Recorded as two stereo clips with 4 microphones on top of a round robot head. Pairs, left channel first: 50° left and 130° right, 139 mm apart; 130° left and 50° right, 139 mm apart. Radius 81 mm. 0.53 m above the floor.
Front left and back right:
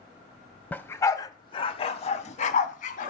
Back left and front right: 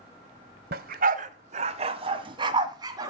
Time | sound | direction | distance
0.7 | a dog barking | 30° right | 0.9 m